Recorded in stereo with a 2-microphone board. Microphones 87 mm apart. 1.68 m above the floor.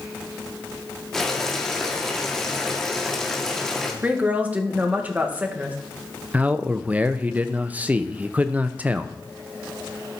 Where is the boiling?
5° left (ahead or behind), 1.9 m.